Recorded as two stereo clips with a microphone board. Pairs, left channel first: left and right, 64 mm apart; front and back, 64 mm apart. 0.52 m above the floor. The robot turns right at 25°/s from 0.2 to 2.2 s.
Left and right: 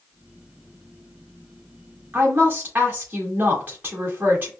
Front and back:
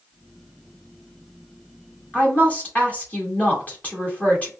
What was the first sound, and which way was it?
A woman speaking, 55° right.